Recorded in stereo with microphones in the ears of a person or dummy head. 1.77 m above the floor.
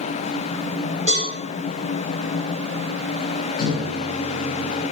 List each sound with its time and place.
1.1 s a cowbell: 35° left (ahead or behind), 1.0 m
3.6 s a microwave: 30° left (ahead or behind), 0.6 m